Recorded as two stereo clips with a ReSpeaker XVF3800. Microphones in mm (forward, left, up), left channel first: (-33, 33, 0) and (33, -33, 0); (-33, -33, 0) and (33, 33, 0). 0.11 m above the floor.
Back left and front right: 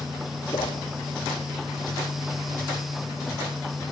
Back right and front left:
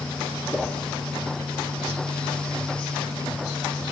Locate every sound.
0.5 s a whoosh: 130° left, 2.5 m